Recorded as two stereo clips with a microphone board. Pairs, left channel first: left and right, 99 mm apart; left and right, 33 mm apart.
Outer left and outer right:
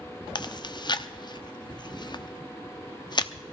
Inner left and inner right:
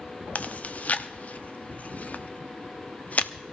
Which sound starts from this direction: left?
Chewing, at 0.3 s.